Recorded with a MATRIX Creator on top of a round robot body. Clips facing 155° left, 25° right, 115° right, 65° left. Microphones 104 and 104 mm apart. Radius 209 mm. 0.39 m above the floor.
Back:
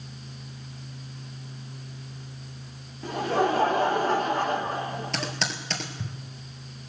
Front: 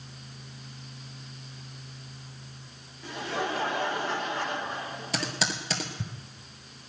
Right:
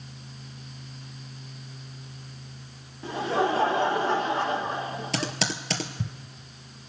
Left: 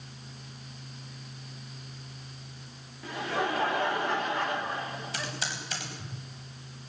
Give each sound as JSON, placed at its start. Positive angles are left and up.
{"t": 3.0, "sound": "laughter", "azimuth_deg": -170, "distance_m": 1.5}
{"t": 5.1, "sound": "typing on a keyboard", "azimuth_deg": -105, "distance_m": 2.0}